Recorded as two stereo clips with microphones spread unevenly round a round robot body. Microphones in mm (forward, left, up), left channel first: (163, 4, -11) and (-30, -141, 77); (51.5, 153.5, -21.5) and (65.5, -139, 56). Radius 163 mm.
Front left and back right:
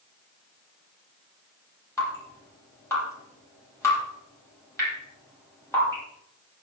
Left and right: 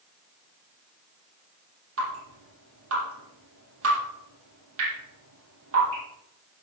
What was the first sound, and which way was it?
Dripping, 45° right.